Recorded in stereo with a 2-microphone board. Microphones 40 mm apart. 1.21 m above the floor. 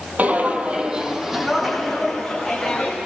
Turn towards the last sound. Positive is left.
turn(degrees=10)  # may be behind; listen again after turning